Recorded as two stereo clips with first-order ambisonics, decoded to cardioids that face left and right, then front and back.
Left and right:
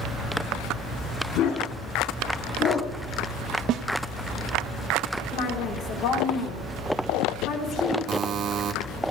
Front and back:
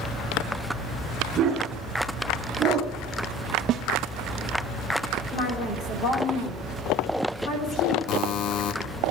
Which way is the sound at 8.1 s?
35° right.